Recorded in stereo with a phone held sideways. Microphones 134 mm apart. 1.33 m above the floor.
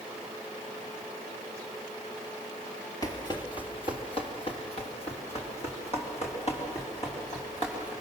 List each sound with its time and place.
3.0 s running footsteps: 25° left (ahead or behind), 1.5 m; by 7.9 s 50° left (ahead or behind), 6 m